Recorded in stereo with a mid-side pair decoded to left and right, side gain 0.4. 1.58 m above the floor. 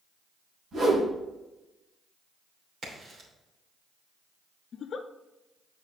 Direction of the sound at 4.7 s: 55° left.